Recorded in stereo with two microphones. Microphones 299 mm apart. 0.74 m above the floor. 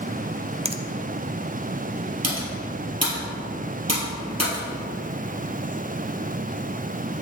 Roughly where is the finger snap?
Centre.